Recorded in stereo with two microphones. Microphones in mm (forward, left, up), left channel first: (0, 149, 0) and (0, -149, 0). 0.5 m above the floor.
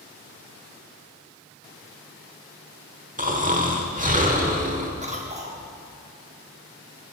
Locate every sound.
3.2 s snoring: 25° right (ahead or behind), 1.1 m
5.0 s a cough: 25° right (ahead or behind), 0.7 m